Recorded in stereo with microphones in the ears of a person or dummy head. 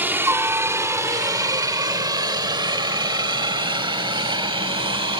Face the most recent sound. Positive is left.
turn(degrees=-25)  # may be behind; listen again after turning